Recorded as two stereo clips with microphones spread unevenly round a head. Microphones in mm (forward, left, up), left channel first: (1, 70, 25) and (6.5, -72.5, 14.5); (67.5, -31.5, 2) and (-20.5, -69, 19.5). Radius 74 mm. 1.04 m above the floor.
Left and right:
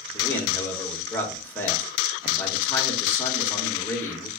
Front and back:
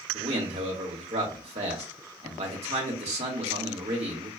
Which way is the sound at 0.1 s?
170° left.